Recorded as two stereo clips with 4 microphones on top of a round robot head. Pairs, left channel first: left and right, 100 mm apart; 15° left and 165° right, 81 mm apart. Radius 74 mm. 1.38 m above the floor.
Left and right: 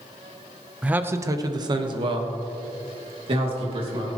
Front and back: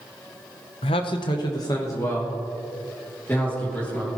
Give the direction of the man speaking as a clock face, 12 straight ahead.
12 o'clock.